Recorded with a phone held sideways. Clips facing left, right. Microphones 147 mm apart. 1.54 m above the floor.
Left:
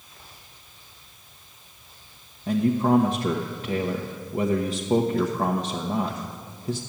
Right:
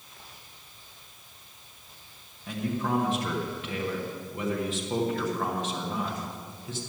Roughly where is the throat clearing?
I don't hear throat clearing.